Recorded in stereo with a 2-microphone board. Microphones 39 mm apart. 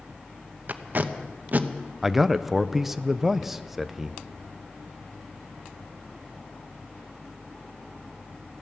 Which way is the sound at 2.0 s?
10° right (ahead or behind).